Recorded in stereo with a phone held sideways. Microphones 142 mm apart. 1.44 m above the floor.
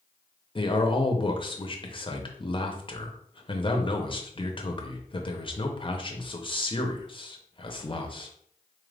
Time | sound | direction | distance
0.6 | a man speaking | 35° left (ahead or behind) | 0.7 m